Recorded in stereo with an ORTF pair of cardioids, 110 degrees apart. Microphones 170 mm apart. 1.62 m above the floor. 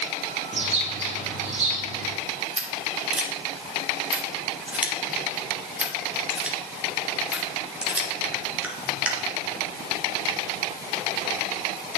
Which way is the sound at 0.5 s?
40° right.